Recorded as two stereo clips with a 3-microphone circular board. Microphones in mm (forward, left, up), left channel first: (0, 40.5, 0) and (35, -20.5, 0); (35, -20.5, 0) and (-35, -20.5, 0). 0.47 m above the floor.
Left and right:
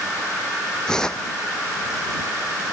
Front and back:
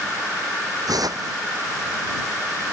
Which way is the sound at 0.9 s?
160° right.